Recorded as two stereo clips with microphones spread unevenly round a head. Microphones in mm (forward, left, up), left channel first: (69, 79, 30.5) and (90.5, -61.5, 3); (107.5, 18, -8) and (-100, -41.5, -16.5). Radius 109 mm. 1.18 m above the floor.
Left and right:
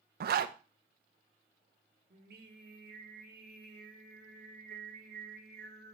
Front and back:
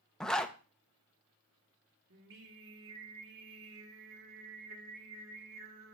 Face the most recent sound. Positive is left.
turn(degrees=-135)